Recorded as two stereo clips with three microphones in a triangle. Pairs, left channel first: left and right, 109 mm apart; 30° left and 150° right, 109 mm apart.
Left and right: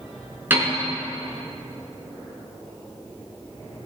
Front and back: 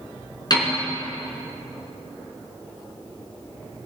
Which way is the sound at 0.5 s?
20° right.